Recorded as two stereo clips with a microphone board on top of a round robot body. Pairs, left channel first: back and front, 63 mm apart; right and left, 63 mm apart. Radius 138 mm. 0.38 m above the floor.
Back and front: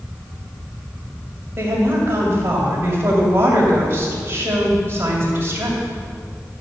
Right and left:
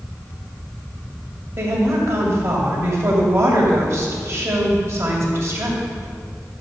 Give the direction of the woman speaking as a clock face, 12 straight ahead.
10 o'clock.